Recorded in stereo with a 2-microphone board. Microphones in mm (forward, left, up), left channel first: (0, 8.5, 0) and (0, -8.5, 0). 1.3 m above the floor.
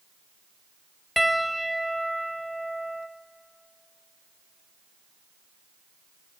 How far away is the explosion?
I don't hear an explosion.